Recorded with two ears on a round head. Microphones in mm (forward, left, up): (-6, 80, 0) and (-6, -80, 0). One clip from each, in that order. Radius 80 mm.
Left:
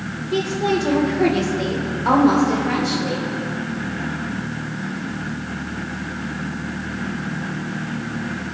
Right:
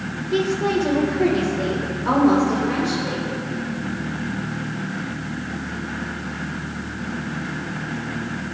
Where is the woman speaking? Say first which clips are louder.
Even; 10° left (ahead or behind), 2.5 m; by 3.3 s 60° left (ahead or behind), 3.5 m.